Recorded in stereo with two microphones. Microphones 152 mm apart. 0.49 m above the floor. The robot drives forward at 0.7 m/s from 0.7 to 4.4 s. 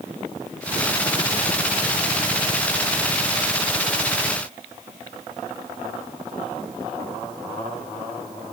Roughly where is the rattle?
I don't hear a rattle.